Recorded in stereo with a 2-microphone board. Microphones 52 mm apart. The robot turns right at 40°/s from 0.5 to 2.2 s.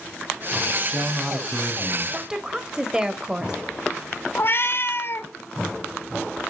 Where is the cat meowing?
45° left (ahead or behind), 0.8 m.